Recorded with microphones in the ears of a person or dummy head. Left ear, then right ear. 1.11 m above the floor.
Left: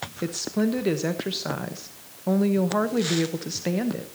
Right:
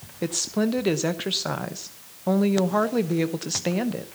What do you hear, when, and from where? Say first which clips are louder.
0.2 s a woman speaking: right 2 dB; 20° right (ahead or behind), 1.0 m